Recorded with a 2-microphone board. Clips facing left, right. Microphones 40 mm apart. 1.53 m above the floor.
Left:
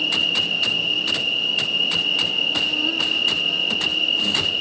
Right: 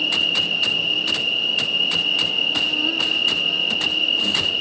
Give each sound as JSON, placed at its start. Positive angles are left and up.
{"t": 0.0, "sound": "an insect", "side_deg": -5}